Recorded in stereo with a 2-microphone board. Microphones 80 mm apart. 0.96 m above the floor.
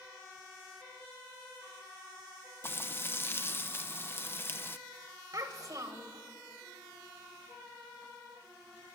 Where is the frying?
30° left (ahead or behind), 0.6 m.